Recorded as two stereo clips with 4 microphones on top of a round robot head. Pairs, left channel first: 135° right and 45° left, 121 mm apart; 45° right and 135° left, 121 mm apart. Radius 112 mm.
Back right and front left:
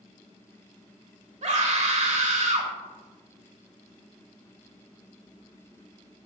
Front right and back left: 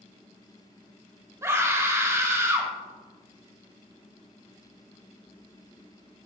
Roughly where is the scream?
Ahead left.